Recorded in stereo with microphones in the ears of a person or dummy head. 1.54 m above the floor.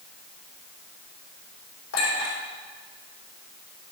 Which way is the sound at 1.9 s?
75° left (ahead or behind).